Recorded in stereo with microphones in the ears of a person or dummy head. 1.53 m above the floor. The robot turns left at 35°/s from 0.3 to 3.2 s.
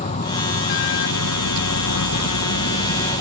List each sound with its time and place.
0.0 s an insect: 145° left; by 3.2 s 45° left